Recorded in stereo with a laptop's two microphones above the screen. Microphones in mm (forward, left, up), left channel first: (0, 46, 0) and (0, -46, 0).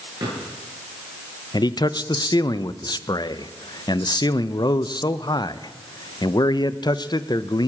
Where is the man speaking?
50° left (ahead or behind), 0.6 m.